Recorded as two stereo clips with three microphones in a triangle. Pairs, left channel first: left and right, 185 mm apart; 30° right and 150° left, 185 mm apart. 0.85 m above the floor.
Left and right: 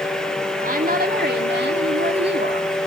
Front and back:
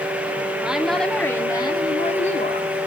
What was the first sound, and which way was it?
A woman speaking, 125° right.